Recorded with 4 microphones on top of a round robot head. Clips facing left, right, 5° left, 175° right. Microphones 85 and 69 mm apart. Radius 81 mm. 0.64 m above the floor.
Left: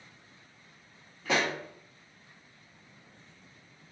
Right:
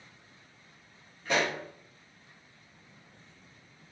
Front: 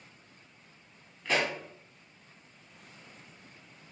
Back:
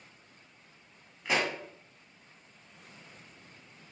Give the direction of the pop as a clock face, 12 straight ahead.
8 o'clock.